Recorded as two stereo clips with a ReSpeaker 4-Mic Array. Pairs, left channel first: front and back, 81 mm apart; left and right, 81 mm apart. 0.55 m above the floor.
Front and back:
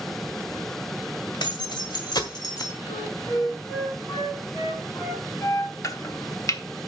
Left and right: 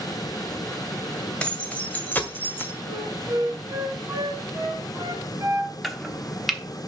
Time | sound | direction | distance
1.4 | keys jangling | 15° left | 1.9 m
2.9 | a flute | 35° right | 2.5 m
5.8 | chopping | straight ahead | 1.0 m